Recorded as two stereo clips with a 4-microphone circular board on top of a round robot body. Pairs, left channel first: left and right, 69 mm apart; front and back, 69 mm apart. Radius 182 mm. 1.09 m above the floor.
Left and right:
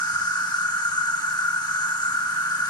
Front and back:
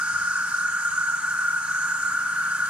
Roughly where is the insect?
Left.